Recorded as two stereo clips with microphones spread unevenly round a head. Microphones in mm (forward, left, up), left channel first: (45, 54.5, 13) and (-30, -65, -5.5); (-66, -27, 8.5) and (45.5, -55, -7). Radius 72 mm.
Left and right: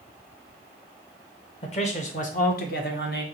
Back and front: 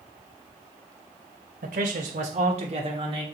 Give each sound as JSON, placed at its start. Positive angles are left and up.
{"t": 1.6, "sound": "a man speaking", "azimuth_deg": 15, "distance_m": 1.2}